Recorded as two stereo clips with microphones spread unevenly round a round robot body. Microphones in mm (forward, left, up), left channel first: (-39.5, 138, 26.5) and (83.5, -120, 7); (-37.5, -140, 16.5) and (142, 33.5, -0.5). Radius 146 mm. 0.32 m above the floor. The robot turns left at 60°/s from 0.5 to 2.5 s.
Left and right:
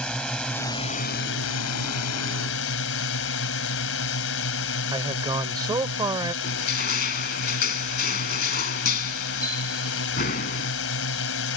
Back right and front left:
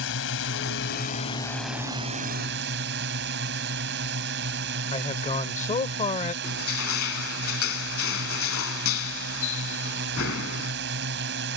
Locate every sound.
0.0 s a drone: 155° right; by 11.6 s 85° left
4.9 s a man speaking: 115° right
6.4 s crushing: 175° left